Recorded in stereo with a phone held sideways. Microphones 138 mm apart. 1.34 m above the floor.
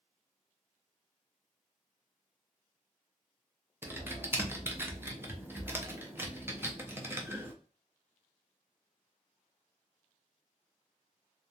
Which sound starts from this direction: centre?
Typing on a keyboard, at 3.8 s.